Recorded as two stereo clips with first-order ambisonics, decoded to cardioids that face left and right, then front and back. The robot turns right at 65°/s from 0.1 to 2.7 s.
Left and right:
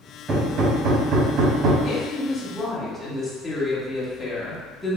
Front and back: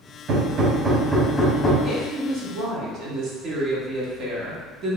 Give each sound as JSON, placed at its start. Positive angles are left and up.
{"t": 0.3, "sound": "hammering", "azimuth_deg": -150, "distance_m": 0.8}
{"t": 1.8, "sound": "a woman speaking", "azimuth_deg": 120, "distance_m": 1.1}